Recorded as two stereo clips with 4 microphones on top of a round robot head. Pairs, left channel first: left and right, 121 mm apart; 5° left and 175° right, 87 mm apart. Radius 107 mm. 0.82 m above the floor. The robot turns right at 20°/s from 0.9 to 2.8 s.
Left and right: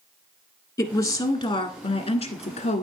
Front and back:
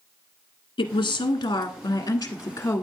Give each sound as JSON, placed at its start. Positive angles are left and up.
{"t": 0.8, "sound": "a woman speaking", "azimuth_deg": 40, "distance_m": 1.6}